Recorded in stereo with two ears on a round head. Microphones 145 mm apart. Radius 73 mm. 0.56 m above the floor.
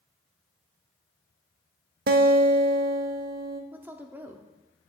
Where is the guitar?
65° right (ahead or behind), 0.5 m.